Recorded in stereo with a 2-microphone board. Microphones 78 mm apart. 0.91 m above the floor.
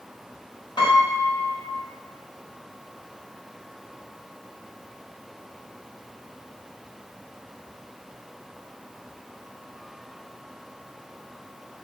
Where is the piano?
75° left (ahead or behind), 0.8 m.